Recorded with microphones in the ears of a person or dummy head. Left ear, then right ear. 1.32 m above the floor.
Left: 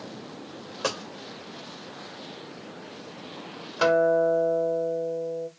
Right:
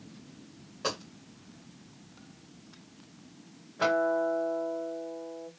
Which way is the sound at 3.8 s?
70° left (ahead or behind).